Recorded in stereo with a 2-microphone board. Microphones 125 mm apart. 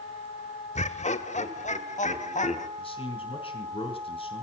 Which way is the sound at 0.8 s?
65° left (ahead or behind).